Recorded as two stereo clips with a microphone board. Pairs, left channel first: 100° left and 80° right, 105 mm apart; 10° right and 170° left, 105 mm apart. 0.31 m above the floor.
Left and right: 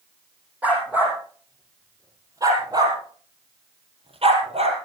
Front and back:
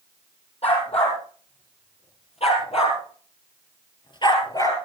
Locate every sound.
0.6 s a dog barking: 5° right, 6 m; by 4.8 s 70° right, 3.5 m